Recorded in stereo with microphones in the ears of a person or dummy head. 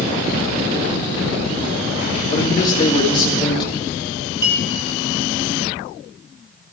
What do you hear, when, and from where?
2.3 s a man speaking: 20° left (ahead or behind), 1.8 m
4.4 s a clink: 15° right (ahead or behind), 1.2 m